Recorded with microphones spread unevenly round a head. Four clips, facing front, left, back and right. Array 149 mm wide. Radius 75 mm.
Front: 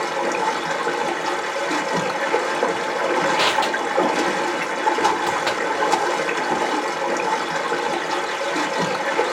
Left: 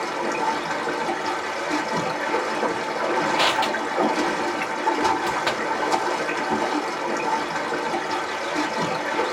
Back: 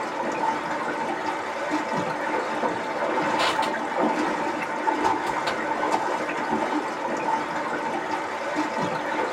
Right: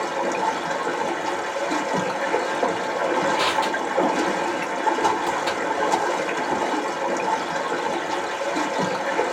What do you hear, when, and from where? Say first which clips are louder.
0.0 s running water: right 1 dB, front 4 dB; 5° right, 1.4 m
3.4 s crushing: even, front 4 dB; 45° left, 1.2 m